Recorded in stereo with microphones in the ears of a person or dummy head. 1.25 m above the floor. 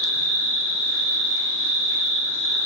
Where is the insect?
70° right (ahead or behind), 2.5 m.